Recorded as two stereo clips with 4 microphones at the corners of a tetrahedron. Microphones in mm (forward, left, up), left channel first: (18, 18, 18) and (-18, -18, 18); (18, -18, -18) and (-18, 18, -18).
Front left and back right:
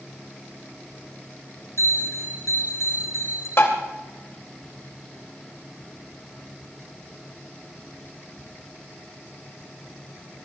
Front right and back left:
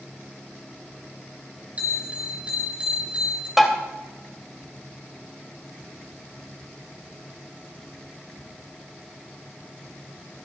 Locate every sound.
1.8 s a bell: 70° left, 7 m
3.6 s tapping: 50° left, 2.5 m